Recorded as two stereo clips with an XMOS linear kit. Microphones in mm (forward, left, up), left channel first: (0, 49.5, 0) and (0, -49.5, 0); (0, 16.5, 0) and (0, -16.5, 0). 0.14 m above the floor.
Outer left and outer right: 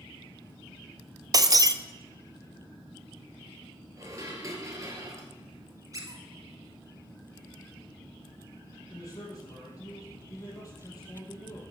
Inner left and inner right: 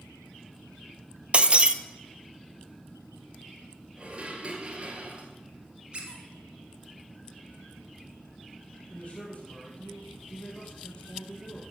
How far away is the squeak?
About 2 m.